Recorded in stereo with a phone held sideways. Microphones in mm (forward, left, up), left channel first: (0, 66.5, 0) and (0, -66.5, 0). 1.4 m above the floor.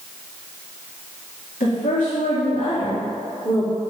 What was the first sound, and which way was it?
A woman speaking, 80° left.